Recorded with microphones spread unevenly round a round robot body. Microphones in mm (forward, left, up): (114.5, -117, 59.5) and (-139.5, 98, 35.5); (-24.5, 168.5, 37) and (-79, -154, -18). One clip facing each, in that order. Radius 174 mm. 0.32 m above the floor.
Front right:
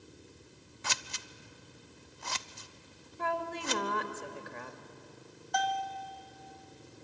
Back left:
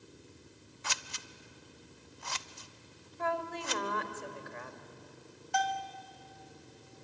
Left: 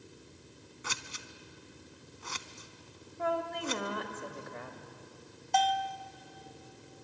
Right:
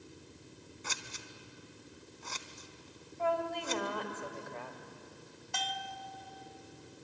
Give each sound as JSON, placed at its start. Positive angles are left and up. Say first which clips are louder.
{"t": 0.8, "sound": "scissors", "louder": "front right 2 dB, left 2 dB", "azimuth_deg": 10, "distance_m": 0.5}
{"t": 3.2, "sound": "a woman speaking", "louder": "even, even", "azimuth_deg": -5, "distance_m": 2.0}
{"t": 5.5, "sound": "a bell", "louder": "front right 1 dB, left 12 dB", "azimuth_deg": -170, "distance_m": 1.5}